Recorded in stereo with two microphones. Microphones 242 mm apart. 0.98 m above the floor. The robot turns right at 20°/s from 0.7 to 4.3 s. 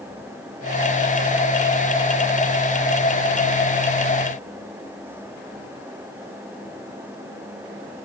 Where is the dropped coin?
No dropped coin in this recording.